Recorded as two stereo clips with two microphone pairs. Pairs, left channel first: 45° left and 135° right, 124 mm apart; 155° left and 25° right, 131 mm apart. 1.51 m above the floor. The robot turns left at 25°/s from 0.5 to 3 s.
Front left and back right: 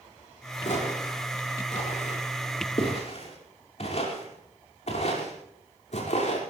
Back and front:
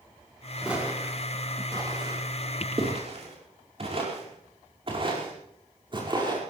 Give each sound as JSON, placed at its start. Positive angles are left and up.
{"t": 0.6, "sound": "footsteps", "azimuth_deg": 55, "distance_m": 6.0}